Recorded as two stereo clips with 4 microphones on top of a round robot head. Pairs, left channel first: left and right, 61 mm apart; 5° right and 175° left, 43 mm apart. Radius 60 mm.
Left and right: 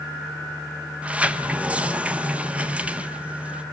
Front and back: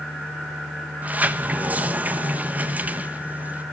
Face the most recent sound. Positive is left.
turn(degrees=-150)